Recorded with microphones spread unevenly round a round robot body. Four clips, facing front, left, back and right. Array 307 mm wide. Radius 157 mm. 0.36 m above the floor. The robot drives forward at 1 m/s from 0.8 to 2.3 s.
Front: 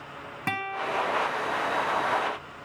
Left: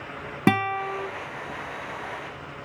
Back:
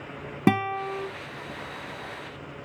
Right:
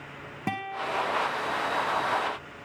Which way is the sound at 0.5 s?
120° left.